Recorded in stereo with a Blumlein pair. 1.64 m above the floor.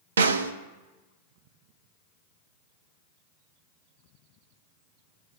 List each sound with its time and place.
0.2 s a snare drum: 65° right, 0.6 m